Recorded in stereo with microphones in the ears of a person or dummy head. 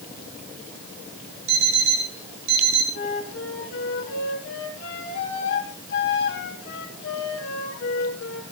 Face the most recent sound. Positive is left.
turn(degrees=70)  # may be behind; listen again after turning